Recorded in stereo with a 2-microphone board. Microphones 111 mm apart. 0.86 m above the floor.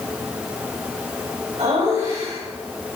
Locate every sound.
1.6 s laughter: 80° right, 4.5 m